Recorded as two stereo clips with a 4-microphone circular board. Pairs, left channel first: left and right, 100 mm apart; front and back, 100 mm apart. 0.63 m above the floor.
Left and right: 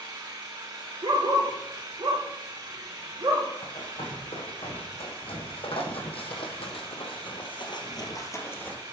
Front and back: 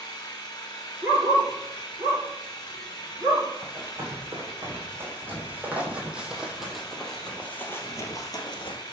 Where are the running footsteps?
115° left, 3 m; by 8.8 s 20° left, 1.1 m.